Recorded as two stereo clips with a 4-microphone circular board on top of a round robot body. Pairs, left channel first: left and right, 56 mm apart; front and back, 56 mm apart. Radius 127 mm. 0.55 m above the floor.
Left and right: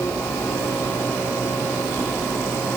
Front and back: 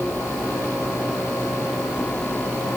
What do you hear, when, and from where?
Only background noise.